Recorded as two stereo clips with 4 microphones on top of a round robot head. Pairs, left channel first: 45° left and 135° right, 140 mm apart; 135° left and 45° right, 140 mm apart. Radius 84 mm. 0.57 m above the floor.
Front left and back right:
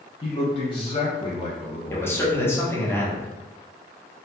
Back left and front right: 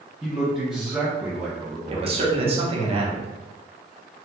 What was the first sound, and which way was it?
A man speaking, 35° left.